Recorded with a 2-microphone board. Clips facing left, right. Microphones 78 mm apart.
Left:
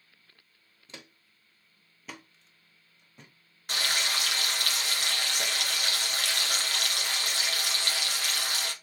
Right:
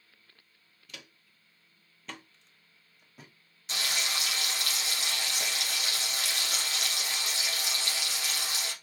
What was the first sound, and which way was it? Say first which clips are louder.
Footsteps: left 2 dB; 25° left (ahead or behind).